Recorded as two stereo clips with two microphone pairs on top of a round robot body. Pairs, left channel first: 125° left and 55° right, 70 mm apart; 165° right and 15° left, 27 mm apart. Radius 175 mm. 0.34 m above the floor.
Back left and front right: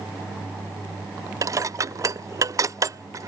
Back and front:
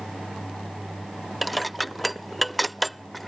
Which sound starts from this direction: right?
Dishes clattering, at 1.4 s.